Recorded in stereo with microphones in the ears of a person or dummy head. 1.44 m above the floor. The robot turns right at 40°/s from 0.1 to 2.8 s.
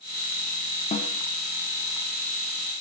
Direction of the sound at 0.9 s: 30° left (ahead or behind).